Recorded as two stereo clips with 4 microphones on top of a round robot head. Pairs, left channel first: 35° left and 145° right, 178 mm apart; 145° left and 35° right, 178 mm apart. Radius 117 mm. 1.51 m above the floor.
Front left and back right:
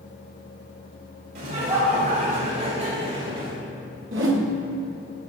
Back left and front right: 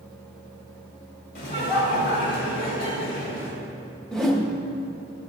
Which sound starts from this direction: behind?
Laughter, at 1.4 s.